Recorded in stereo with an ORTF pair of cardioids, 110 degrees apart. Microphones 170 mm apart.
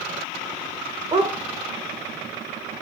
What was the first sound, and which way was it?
A dog barking, 30° right.